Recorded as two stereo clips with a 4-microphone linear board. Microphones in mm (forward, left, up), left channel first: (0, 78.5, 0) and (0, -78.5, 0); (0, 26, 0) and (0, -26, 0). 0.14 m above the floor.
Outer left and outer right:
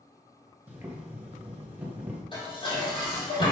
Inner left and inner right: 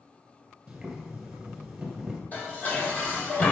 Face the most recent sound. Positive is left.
turn(degrees=35)  # may be behind; listen again after turning